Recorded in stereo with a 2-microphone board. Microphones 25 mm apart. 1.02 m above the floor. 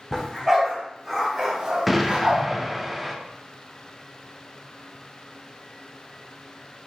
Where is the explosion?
5° right (ahead or behind), 0.7 m.